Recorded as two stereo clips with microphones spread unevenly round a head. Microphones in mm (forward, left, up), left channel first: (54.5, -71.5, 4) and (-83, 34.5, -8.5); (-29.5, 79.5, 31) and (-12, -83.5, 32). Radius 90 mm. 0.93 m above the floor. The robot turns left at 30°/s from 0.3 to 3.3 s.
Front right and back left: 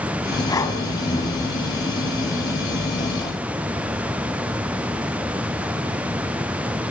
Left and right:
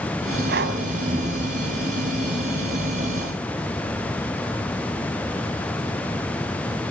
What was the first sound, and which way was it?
Breathing, 105° right.